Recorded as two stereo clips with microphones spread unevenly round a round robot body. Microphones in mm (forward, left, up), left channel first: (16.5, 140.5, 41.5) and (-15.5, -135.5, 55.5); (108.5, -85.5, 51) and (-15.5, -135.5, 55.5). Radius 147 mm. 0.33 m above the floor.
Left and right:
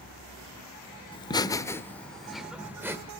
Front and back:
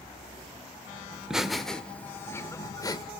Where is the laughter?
125° left, 0.9 m; by 3.1 s 20° right, 1.1 m.